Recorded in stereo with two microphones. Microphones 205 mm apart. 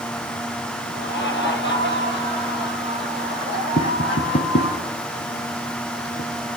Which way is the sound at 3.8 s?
60° left (ahead or behind).